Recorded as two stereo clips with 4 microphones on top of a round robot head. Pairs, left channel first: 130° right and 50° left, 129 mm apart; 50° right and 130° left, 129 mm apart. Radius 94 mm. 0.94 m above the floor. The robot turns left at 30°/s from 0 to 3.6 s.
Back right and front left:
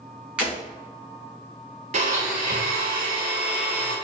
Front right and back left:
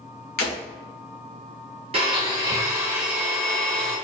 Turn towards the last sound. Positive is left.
turn(degrees=35)